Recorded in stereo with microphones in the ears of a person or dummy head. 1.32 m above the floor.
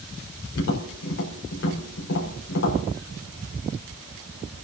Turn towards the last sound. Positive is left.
turn(degrees=75)  # may be behind; listen again after turning